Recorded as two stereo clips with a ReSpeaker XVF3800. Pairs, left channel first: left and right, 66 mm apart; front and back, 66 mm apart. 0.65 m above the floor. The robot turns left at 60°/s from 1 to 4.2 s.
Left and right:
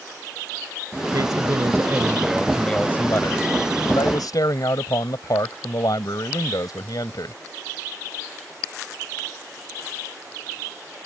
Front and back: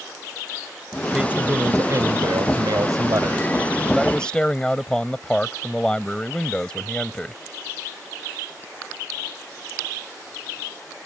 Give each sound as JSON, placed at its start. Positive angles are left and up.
{"t": 1.1, "sound": "a man speaking", "azimuth_deg": -100}